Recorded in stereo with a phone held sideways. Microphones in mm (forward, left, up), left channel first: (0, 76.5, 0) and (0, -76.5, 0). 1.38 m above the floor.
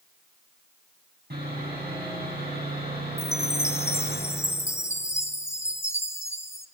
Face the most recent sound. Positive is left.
turn(degrees=15)  # may be behind; listen again after turning